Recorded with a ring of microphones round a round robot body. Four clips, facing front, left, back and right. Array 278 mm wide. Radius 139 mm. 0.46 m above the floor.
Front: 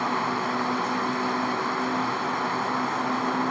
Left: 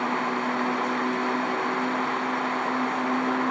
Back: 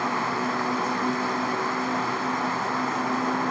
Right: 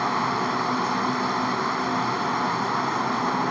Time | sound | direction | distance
0.0 | running water | 95° right | ?